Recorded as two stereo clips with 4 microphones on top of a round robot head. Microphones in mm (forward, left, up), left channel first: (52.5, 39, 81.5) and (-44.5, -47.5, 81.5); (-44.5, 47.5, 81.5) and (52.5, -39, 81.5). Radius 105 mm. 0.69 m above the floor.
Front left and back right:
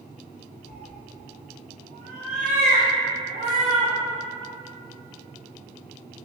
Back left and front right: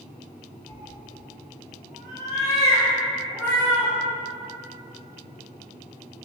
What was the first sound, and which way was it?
A cat meowing, 65° left.